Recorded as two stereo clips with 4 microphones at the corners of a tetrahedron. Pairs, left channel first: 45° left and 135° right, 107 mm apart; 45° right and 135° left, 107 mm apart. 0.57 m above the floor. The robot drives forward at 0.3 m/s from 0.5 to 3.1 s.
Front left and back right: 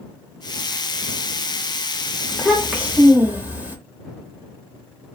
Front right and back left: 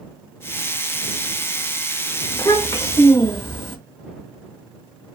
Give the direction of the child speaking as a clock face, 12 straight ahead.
2 o'clock.